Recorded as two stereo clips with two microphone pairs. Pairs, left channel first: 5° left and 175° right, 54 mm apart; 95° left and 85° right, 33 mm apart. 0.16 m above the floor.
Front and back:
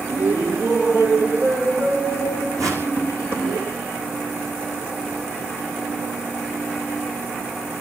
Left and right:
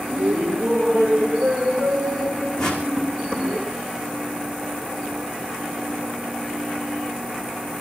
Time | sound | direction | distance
0.1 | laughter | 135° right | 5.5 m
2.6 | a whoosh | 165° left | 5 m